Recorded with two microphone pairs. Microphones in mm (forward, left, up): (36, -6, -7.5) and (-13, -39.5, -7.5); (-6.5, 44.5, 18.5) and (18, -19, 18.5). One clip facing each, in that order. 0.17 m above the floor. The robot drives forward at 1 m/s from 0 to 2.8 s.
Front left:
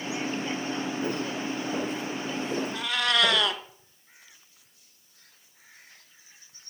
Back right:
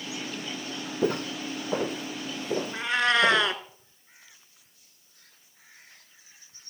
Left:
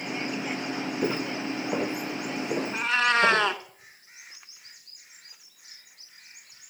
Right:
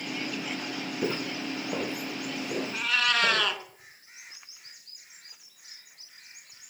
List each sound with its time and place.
1.0 s footsteps: 170° right, 1.9 m; by 3.5 s 165° left, 2.5 m
2.7 s a cat meowing: 165° left, 0.9 m